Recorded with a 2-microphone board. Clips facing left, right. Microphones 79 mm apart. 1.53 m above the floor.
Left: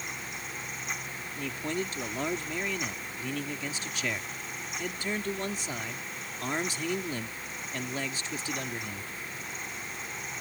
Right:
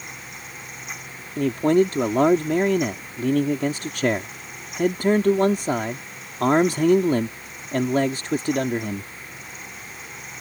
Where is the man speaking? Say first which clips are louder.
Right 16 dB; 60° right (ahead or behind).